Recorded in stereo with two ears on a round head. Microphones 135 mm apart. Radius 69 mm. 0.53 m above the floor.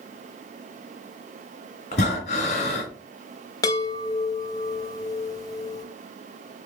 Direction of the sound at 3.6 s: 25° left (ahead or behind).